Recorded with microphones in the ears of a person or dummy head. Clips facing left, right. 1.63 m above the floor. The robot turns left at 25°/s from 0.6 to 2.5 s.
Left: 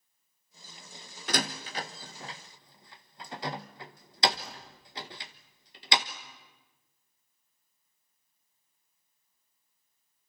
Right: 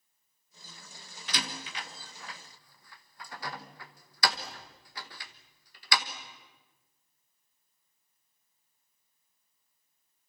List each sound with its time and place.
1.3 s a door slam: 45° left (ahead or behind), 1.1 m; by 6.1 s 20° left (ahead or behind), 1.1 m